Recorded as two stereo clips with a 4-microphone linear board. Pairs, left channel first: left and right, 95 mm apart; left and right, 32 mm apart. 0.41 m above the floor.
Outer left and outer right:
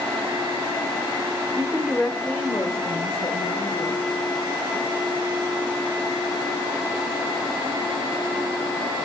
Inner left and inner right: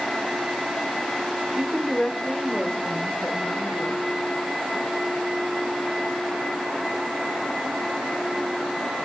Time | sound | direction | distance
1.6 | a woman speaking | 35° right (ahead or behind) | 0.9 m